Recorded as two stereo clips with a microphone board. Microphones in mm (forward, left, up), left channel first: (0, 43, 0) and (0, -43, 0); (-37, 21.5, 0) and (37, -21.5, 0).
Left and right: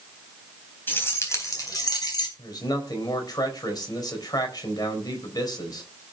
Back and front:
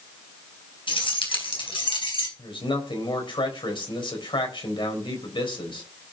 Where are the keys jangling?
155° left, 3.5 m; by 2.3 s 125° left, 4.5 m.